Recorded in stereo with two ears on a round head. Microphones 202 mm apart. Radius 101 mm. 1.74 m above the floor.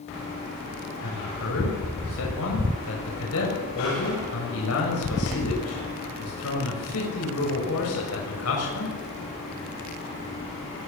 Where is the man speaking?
70° left (ahead or behind), 7.5 m.